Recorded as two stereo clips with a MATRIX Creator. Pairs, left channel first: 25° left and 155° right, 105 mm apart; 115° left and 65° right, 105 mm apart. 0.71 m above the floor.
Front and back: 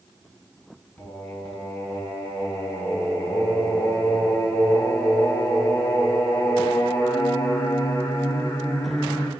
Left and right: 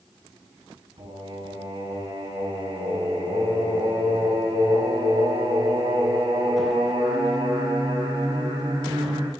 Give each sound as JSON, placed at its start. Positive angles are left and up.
{"t": 1.0, "sound": "singing", "azimuth_deg": -55, "distance_m": 3.5}